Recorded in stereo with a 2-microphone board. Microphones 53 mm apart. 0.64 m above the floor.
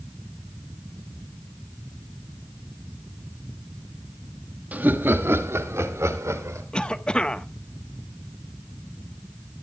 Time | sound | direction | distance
4.7 | laughter | 30° right (ahead or behind) | 1.2 m
6.7 | a cough | 20° left (ahead or behind) | 1.0 m